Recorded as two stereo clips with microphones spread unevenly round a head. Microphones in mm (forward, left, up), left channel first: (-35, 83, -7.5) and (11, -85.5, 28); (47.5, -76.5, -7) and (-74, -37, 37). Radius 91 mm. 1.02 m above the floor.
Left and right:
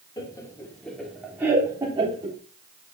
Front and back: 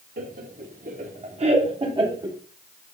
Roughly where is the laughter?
Behind.